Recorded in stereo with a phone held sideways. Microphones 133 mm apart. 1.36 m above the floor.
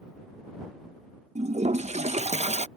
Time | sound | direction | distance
1.4 | a toilet flushing | 55° right (ahead or behind) | ?